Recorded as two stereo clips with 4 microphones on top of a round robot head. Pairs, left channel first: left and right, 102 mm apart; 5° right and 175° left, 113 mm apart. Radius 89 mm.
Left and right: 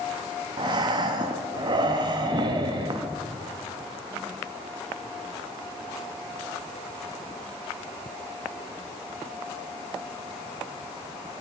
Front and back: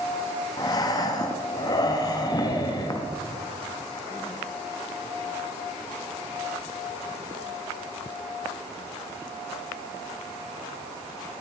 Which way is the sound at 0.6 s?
55° right.